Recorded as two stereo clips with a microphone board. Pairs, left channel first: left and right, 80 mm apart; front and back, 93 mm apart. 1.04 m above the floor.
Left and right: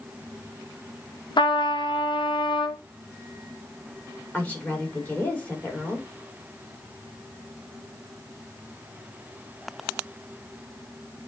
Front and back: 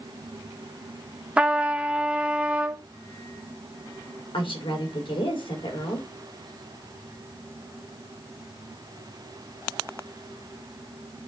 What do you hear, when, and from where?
1.4 s a trumpet: 105° left, 0.8 m
4.3 s a woman speaking: 20° left, 2.5 m